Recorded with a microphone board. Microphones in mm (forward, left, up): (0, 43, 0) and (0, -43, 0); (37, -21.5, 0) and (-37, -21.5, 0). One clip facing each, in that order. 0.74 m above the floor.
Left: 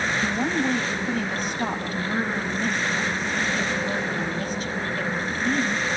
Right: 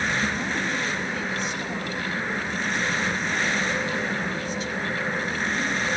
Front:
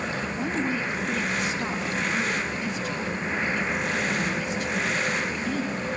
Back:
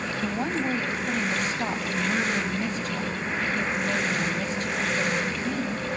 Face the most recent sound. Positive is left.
turn(degrees=135)